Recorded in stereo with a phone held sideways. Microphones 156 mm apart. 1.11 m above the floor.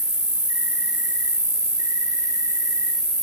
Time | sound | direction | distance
0.0 | an insect | 25° right (ahead or behind) | 3.5 m